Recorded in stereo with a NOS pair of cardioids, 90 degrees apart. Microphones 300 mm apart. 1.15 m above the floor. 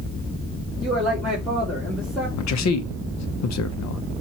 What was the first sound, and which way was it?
A man speaking, straight ahead.